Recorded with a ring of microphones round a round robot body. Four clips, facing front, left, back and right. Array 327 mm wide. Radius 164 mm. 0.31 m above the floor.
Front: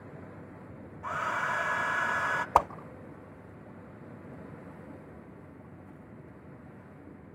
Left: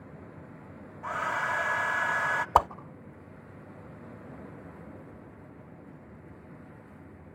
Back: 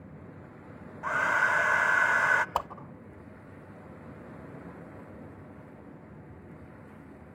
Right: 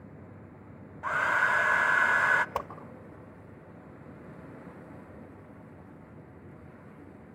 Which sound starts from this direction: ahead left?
A whoosh, at 2.5 s.